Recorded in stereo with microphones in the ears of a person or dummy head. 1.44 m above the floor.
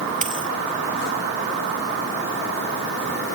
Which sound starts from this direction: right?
A dropped coin, at 0.2 s.